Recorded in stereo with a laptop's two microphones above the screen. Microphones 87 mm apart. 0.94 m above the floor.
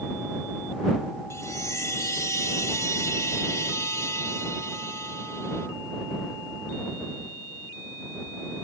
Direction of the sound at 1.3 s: 35° left (ahead or behind).